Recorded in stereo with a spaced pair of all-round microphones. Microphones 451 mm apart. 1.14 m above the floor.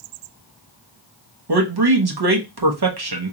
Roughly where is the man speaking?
Right.